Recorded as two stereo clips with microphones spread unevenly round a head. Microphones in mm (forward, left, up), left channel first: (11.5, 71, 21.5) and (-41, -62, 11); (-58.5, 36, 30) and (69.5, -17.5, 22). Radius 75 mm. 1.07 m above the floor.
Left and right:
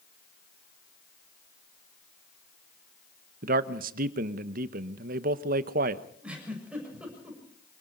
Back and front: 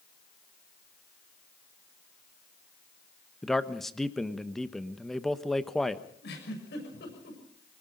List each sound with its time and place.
3.4 s a man speaking: 115° right, 1.1 m
6.2 s a giggle: 165° left, 6.5 m